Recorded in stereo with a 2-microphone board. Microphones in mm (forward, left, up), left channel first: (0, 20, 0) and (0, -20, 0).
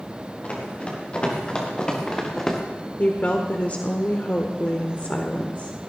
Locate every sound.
0.4 s running footsteps: 30° left (ahead or behind), 6 m; by 2.6 s 10° left (ahead or behind), 3.5 m
3.0 s a woman speaking: 40° left (ahead or behind), 1.3 m